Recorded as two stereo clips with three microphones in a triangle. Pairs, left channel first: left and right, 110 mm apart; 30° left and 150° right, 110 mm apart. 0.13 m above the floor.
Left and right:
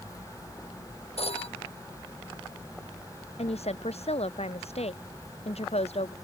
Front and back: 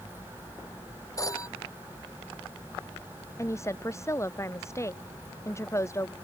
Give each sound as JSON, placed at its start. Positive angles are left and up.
{"t": 1.2, "sound": "a phone ringing", "azimuth_deg": 85}
{"t": 3.4, "sound": "a woman speaking", "azimuth_deg": 95}